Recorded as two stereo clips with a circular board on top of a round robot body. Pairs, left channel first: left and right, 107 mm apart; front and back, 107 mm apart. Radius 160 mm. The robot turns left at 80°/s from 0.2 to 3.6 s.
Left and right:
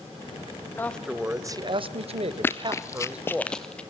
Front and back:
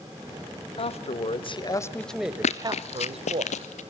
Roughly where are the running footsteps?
Ahead.